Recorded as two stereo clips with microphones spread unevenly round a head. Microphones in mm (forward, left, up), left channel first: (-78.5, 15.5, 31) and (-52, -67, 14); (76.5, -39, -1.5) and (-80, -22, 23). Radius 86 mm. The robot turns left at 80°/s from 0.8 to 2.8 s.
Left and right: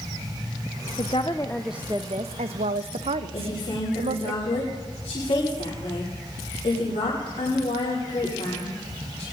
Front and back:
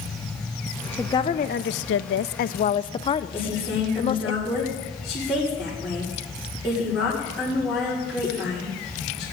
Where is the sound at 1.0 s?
80° left, 0.5 m; by 4.3 s 65° right, 0.5 m.